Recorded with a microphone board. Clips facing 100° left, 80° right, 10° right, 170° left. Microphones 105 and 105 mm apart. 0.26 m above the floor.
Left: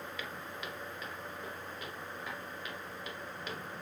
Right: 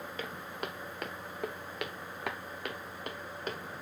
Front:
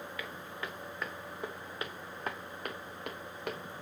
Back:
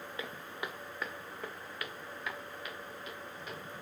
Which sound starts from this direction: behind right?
Footsteps, at 0.2 s.